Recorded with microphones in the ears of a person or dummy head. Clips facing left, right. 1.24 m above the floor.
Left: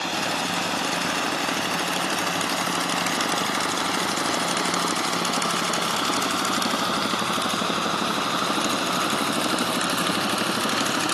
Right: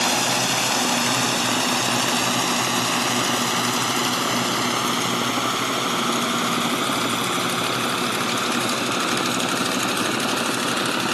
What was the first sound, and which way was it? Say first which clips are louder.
A drone: right 4 dB; 60° right (ahead or behind).